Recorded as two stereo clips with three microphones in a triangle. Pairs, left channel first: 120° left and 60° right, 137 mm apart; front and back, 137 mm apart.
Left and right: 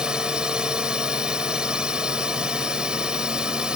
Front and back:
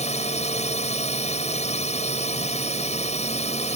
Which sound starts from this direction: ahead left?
A drone, at 0.0 s.